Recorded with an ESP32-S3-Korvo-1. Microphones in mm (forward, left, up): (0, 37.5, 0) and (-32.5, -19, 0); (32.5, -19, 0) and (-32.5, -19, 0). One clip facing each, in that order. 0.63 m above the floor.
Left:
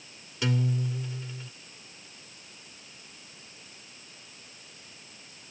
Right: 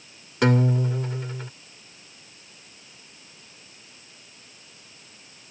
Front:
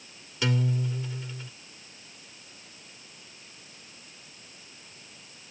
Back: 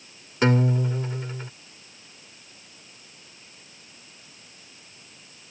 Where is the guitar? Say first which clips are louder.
Right 8 dB, back 7 dB; 140° right.